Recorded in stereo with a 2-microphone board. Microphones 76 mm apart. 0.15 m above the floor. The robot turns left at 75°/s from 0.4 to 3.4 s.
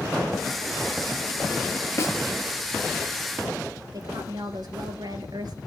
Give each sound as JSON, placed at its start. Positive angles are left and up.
{"t": 2.0, "sound": "a snare drum", "side_deg": 40, "distance_m": 3.0}
{"t": 3.9, "sound": "a woman speaking", "side_deg": -65, "distance_m": 3.0}